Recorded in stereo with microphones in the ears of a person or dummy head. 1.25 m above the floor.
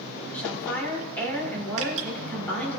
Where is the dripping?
70° right (ahead or behind), 1.5 m.